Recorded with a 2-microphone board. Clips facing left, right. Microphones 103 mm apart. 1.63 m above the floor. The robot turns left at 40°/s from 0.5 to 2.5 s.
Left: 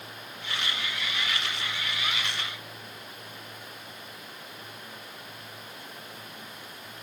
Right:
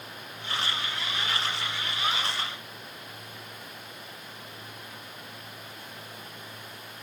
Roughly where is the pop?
No pop in this recording.